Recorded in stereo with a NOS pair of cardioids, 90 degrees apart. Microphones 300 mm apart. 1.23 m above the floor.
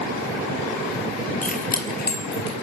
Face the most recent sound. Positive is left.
turn(degrees=40)